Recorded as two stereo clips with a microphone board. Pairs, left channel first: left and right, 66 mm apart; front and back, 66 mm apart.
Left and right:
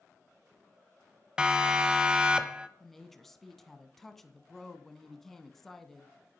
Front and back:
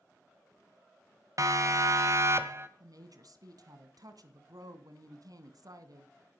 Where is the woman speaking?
Straight behind, 2.5 m.